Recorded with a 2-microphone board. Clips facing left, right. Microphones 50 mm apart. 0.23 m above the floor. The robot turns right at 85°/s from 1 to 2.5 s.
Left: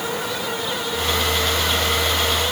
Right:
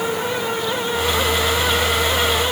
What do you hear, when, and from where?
Only background noise.